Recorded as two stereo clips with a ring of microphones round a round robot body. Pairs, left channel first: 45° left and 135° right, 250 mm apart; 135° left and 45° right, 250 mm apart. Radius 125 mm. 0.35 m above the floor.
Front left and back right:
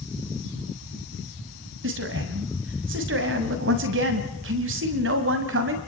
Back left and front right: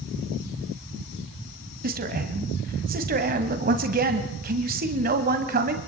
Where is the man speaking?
100° right, 1.9 m.